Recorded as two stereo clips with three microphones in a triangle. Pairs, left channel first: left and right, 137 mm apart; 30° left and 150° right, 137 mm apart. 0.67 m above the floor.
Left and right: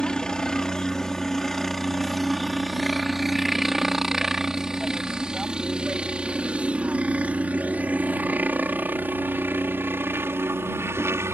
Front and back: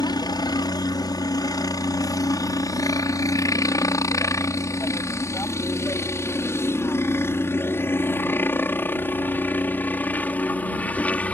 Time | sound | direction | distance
0.0 | a helicopter | 10° left | ?